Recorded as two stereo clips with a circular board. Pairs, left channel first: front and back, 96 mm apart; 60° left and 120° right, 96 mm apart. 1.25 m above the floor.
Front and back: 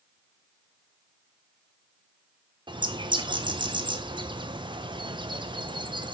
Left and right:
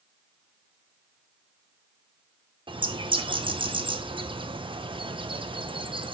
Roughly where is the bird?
Behind right.